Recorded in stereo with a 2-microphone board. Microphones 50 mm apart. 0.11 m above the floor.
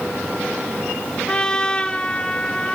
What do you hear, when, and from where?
1.3 s a trumpet: 20° left (ahead or behind), 1.7 m